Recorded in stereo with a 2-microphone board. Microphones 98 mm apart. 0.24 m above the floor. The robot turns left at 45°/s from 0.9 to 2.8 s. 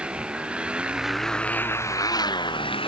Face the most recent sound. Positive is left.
turn(degrees=105)